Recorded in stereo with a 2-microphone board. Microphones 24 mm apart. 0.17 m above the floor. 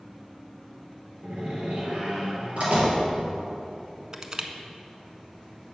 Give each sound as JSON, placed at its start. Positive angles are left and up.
{"t": 1.2, "sound": "a door slam", "side_deg": -65, "distance_m": 3.0}
{"t": 4.1, "sound": "crushing", "side_deg": -25, "distance_m": 0.6}